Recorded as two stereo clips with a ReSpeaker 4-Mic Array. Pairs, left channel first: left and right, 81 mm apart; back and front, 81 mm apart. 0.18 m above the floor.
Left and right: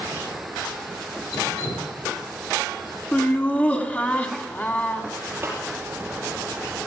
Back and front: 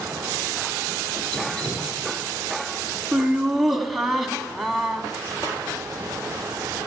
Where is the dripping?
100° left, 2.5 m.